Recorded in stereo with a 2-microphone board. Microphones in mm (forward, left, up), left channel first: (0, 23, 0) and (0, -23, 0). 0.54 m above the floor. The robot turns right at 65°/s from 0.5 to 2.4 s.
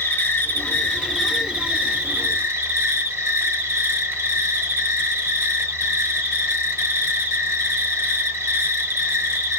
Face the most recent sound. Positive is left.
turn(degrees=-110)